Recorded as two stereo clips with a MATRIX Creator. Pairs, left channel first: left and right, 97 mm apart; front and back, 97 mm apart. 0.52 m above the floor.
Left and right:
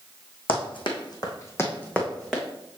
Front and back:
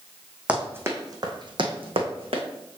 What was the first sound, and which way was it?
Running footsteps, 105° left.